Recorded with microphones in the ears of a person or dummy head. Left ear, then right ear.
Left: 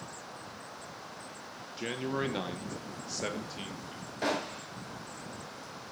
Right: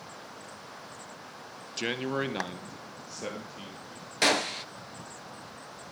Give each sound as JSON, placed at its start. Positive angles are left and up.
{"t": 1.8, "sound": "a man speaking", "side_deg": -30, "distance_m": 0.9}
{"t": 4.2, "sound": "a gunshot", "side_deg": -60, "distance_m": 0.9}